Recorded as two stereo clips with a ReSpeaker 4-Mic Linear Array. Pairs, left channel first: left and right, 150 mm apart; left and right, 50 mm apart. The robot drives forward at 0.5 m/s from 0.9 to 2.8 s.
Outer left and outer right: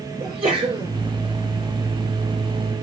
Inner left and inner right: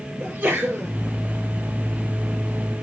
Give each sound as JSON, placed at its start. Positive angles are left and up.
{"t": 0.2, "sound": "a sneeze", "side_deg": -40, "distance_m": 5.0}